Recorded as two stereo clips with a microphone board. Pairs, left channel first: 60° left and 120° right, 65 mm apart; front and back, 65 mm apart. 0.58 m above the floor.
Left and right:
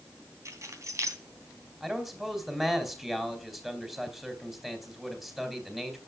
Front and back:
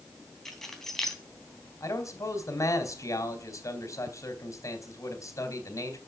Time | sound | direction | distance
0.5 | keys jangling | 85° right | 3 m
1.8 | a man speaking | 35° right | 3.5 m